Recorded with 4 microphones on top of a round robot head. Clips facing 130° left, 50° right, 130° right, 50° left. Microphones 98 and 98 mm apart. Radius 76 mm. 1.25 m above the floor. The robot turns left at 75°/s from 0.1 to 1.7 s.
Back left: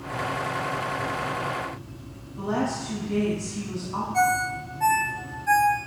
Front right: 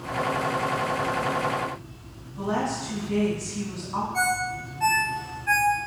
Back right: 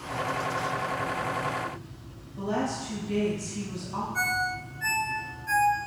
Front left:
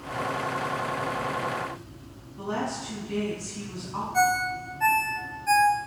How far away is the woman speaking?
About 3 m.